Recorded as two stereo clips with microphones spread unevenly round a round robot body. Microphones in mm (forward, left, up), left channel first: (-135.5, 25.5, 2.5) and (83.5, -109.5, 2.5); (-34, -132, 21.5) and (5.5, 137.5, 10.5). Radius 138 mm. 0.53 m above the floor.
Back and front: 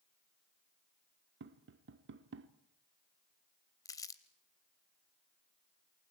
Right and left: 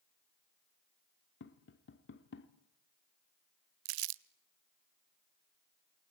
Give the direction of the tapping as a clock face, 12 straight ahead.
2 o'clock.